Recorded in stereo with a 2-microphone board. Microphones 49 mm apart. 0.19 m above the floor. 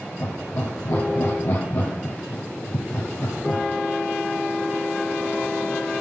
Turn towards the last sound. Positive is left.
turn(degrees=70)  # may be behind; listen again after turning